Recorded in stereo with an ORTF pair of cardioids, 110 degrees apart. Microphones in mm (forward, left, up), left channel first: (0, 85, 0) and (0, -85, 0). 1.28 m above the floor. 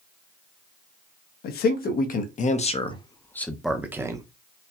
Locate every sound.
1.4 s a man speaking: 70° left, 1.2 m; by 4.2 s 25° right, 0.8 m